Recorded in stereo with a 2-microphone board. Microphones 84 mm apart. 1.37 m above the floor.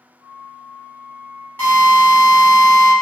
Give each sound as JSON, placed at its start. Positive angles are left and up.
{"t": 0.2, "sound": "a flute", "side_deg": -75, "distance_m": 1.4}
{"t": 1.6, "sound": "a drill", "side_deg": 25, "distance_m": 1.7}